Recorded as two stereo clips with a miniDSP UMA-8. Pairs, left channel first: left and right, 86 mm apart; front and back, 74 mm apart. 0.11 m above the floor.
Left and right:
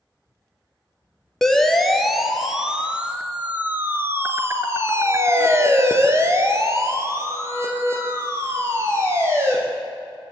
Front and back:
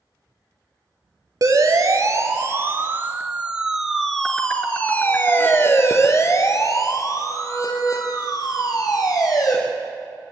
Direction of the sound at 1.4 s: 175° left.